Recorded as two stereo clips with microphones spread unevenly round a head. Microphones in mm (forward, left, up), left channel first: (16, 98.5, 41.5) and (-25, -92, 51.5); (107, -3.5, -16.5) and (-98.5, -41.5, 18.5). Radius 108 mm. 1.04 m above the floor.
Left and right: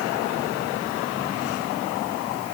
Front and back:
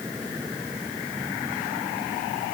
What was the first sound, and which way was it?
Only background noise.